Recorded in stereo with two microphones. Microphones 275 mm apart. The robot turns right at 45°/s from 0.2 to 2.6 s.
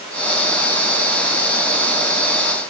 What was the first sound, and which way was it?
Only background noise.